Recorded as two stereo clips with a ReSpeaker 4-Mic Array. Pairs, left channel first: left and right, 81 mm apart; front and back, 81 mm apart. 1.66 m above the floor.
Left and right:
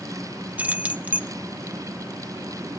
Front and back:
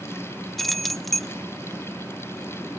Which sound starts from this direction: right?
Keys jangling, at 0.6 s.